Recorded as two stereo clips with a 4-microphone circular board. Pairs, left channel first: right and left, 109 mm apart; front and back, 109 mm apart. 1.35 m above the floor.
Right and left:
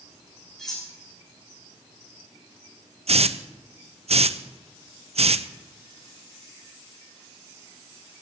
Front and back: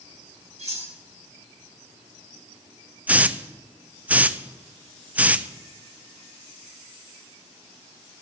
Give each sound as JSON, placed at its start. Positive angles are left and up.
{"t": 0.6, "sound": "cutlery clinking", "azimuth_deg": -175, "distance_m": 6.5}
{"t": 3.1, "sound": "a hiss", "azimuth_deg": 105, "distance_m": 0.5}